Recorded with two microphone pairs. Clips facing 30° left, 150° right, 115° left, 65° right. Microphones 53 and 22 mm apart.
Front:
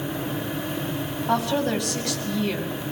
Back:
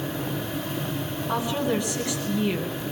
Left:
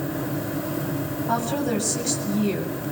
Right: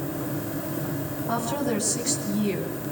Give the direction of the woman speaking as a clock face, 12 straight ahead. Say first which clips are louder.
Front 3 dB, left 2 dB; 11 o'clock.